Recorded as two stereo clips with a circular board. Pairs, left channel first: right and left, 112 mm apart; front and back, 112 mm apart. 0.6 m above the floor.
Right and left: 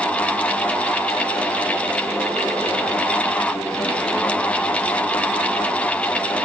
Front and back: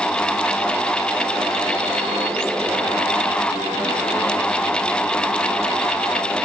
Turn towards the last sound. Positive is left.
No sound to turn to.